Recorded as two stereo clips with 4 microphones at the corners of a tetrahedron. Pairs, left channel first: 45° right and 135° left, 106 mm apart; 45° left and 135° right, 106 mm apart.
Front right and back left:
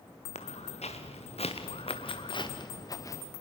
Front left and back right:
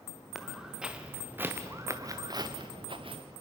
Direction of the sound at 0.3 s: 45° right.